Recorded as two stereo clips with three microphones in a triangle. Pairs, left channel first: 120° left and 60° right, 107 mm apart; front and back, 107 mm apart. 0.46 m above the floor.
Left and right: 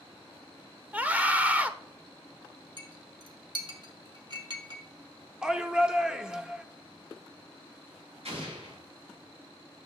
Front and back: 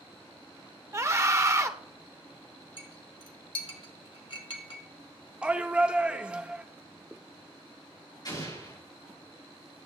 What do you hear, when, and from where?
0.9 s a scream: 130° right, 1.0 m
2.8 s a clink: 25° right, 1.5 m
5.4 s a shout: 125° right, 0.8 m
8.2 s an explosion: 45° right, 6.5 m